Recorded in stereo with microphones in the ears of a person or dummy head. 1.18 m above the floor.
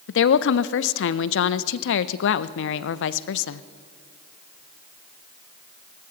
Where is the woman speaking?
70° left (ahead or behind), 0.5 m.